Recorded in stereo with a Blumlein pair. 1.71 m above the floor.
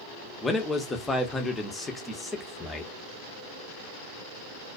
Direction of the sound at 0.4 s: 10° left.